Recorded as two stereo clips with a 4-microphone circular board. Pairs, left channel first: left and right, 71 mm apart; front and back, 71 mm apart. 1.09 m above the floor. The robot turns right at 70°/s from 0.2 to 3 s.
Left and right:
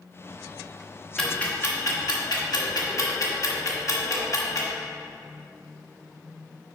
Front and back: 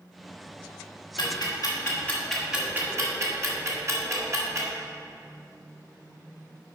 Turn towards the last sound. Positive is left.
turn(degrees=130)